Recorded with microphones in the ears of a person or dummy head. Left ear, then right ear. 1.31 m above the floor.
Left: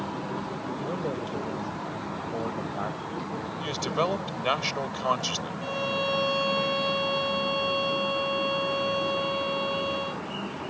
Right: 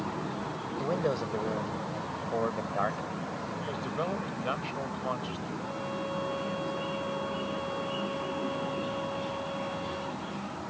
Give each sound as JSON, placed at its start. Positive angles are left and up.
{"t": 0.8, "sound": "a man speaking", "side_deg": -80}
{"t": 3.6, "sound": "a man speaking", "side_deg": 80}
{"t": 5.6, "sound": "a violin", "side_deg": 70}